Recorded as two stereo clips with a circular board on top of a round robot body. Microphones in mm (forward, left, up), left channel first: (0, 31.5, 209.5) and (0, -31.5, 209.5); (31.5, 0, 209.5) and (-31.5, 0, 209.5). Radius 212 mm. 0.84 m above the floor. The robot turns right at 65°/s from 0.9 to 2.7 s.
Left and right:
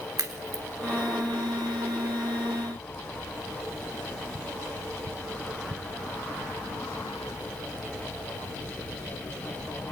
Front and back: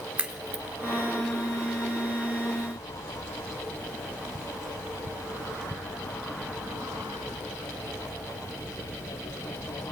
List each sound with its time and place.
0.2 s a crack: 110° right, 3 m